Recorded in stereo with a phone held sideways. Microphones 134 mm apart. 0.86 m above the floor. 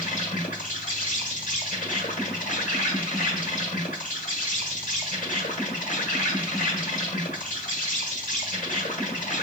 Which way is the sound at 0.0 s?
80° left.